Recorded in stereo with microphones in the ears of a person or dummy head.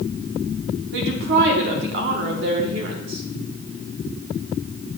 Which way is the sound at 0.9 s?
55° right (ahead or behind).